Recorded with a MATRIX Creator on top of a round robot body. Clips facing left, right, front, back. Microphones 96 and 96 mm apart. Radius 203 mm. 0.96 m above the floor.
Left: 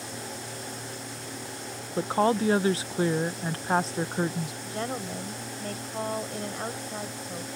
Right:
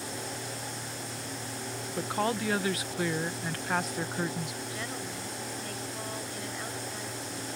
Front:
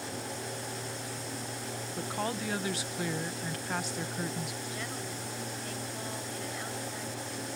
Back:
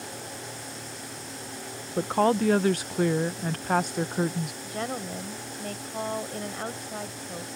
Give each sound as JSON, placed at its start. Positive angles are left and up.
{"t": 2.0, "sound": "a woman speaking", "azimuth_deg": 145}
{"t": 4.6, "sound": "a woman speaking", "azimuth_deg": 140}